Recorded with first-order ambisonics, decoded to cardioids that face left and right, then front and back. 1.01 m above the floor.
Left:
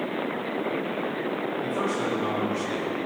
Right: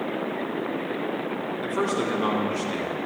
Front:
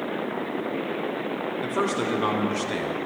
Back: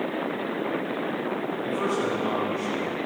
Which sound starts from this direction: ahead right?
A man speaking, at 1.6 s.